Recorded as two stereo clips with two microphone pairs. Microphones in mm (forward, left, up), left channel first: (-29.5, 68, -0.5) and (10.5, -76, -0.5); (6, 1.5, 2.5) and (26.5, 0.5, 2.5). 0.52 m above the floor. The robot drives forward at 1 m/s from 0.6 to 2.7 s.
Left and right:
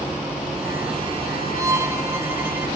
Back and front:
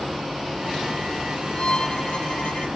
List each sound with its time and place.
1.6 s a violin: 145° right; by 2.7 s 150° right